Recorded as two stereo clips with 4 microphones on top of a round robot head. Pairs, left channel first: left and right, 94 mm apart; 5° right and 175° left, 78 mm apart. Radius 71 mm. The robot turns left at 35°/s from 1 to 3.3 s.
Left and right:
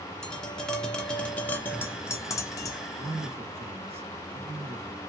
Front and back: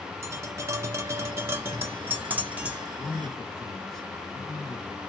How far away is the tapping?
About 0.5 m.